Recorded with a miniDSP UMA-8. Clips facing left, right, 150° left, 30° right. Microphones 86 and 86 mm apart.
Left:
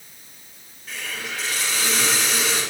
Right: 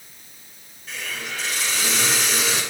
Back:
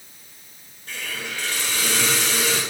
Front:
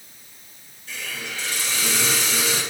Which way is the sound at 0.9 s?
Straight behind.